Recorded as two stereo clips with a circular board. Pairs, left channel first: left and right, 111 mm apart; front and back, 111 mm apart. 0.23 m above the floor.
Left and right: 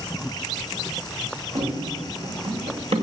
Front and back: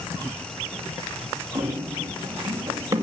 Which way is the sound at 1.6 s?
115° right.